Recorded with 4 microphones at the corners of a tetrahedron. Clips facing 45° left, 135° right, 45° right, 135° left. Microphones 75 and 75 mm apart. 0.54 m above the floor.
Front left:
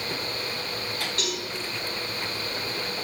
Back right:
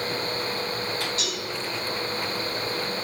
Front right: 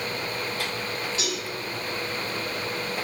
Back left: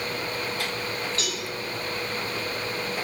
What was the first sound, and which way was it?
A cowbell, 20° left.